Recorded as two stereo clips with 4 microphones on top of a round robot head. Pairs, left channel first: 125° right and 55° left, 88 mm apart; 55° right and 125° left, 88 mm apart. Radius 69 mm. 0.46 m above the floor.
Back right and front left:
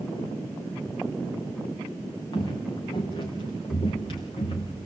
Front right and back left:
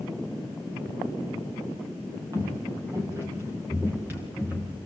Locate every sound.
2.3 s footsteps: 175° right, 4 m; by 4.9 s 155° right, 3.5 m